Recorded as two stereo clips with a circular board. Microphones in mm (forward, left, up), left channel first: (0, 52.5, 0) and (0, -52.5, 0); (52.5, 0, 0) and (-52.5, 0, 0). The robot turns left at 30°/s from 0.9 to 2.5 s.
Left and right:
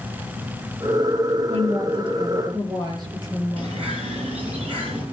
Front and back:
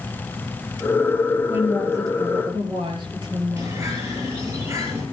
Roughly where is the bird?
Behind right.